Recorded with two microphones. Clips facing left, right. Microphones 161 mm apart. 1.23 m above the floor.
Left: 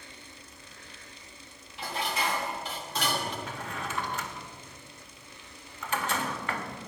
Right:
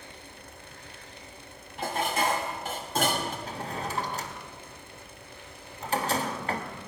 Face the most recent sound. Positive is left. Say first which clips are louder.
# right 3 dB
turn(degrees=-35)  # may be behind; listen again after turning